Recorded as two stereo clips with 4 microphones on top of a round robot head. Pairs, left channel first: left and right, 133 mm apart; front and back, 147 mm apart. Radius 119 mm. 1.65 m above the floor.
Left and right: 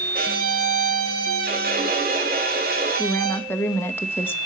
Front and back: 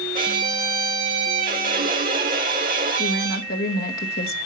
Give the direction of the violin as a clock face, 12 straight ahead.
4 o'clock.